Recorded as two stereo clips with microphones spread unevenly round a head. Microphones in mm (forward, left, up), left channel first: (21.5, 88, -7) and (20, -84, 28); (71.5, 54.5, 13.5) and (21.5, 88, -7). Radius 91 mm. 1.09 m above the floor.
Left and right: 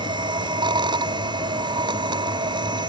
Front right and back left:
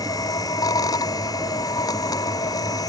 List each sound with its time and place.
0.0 s a machine running: 25° right